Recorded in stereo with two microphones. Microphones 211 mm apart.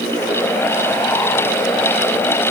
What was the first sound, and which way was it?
Only background noise.